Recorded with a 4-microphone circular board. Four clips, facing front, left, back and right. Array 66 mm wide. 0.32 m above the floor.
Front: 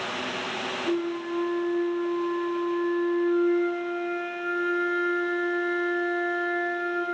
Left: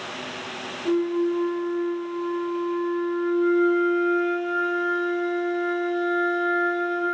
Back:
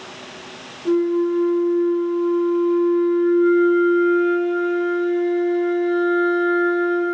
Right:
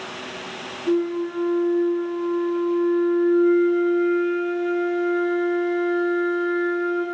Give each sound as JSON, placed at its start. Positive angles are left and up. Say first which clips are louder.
{"t": 0.8, "sound": "a flute", "louder": "even, back 12 dB", "azimuth_deg": 160, "distance_m": 3.5}